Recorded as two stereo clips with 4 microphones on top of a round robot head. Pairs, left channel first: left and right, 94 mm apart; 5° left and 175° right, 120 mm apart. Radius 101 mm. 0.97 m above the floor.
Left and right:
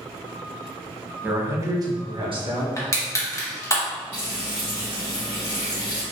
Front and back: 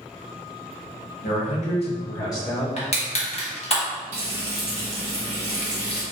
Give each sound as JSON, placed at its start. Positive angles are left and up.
{"t": 1.2, "sound": "a man speaking", "azimuth_deg": -15, "distance_m": 1.2}
{"t": 2.8, "sound": "crushing", "azimuth_deg": 35, "distance_m": 1.3}
{"t": 4.1, "sound": "frying", "azimuth_deg": 170, "distance_m": 1.6}